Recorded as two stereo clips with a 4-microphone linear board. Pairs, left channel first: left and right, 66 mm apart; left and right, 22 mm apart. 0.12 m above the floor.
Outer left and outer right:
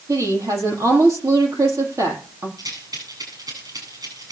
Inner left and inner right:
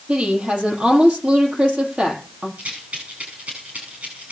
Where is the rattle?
85° right, 8.5 m.